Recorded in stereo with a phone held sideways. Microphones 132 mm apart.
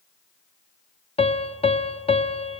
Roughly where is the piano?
Left.